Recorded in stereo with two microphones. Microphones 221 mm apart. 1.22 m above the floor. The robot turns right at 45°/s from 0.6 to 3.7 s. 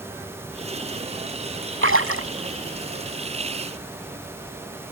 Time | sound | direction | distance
1.8 | a splash | 70° right (ahead or behind) | ?